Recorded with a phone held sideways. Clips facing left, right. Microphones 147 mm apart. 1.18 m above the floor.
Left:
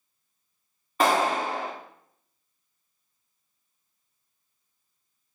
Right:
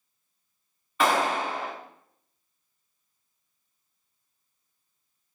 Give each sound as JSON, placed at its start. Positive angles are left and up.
{"t": 1.0, "sound": "a clap", "side_deg": 40, "distance_m": 2.5}